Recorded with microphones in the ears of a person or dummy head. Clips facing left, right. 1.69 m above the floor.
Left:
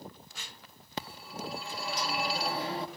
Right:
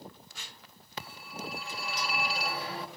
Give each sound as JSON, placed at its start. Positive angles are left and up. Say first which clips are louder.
{"t": 1.0, "sound": "a phone ringing", "louder": "left 2 dB", "side_deg": 30, "distance_m": 2.5}